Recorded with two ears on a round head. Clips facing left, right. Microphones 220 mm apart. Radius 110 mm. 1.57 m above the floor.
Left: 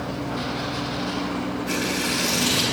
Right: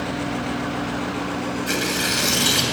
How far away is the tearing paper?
About 3 m.